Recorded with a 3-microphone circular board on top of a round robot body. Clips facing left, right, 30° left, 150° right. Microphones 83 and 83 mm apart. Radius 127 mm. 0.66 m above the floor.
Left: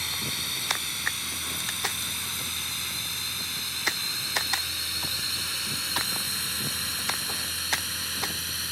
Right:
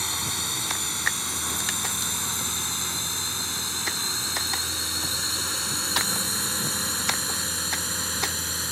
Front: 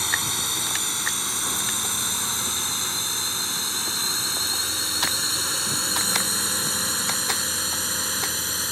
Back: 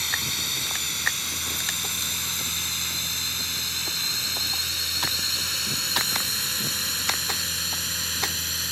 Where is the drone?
25° right.